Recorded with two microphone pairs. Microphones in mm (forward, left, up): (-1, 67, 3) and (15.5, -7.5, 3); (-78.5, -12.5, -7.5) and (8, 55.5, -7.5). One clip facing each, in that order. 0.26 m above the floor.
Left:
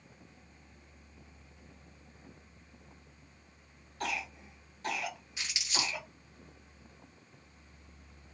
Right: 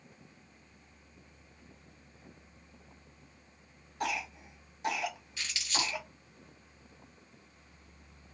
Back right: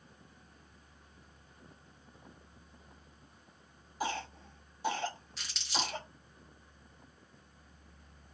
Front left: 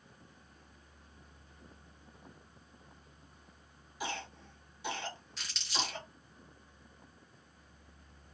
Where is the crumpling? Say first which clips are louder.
Right 2 dB, back right 2 dB; 135° left, 1.2 m.